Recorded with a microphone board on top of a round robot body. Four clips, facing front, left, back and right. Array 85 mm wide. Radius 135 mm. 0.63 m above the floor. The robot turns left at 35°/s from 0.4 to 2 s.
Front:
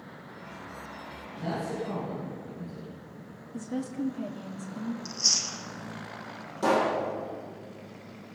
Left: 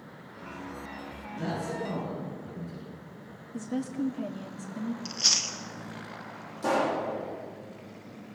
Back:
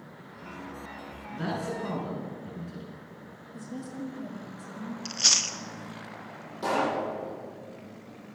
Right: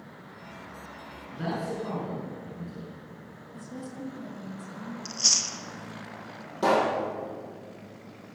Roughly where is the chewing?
Behind.